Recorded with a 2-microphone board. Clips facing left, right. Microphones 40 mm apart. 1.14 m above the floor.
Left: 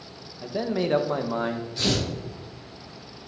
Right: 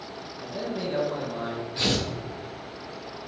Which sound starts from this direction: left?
A man speaking, at 0.4 s.